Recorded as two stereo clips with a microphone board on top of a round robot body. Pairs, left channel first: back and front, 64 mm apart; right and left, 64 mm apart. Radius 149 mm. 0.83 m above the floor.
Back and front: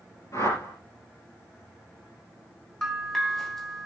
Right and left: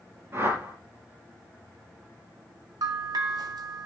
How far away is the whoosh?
About 5.5 m.